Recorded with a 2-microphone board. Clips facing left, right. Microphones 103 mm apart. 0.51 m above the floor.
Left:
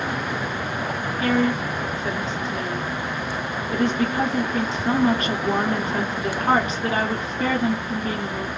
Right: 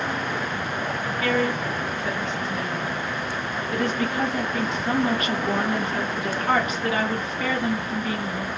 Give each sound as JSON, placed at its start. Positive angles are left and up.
{"t": 1.2, "sound": "a woman speaking", "side_deg": 30, "distance_m": 1.4}